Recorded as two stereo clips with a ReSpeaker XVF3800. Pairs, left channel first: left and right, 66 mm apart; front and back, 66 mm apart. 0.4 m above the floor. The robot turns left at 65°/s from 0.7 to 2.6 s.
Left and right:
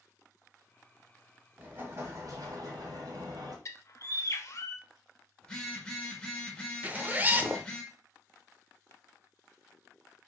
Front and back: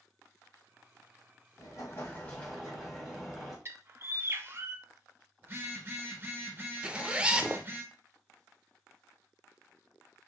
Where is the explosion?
25° right, 1.8 m; by 3.5 s 90° right, 1.8 m.